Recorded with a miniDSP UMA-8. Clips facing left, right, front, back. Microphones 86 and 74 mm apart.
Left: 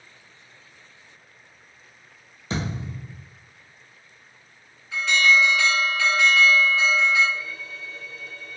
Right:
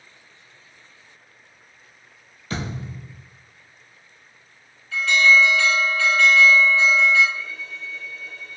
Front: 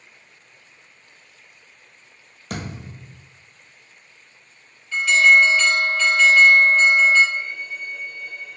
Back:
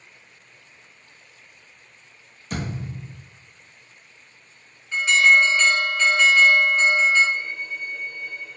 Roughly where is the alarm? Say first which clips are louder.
Right 3 dB, front 2 dB; behind left.